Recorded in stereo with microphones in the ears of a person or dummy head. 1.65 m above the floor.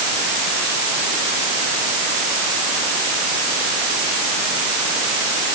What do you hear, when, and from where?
Only background noise.